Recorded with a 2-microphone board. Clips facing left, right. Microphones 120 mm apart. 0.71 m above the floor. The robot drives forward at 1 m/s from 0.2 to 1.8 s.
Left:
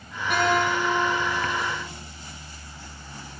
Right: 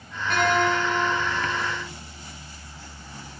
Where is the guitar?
10° left (ahead or behind), 3.5 m.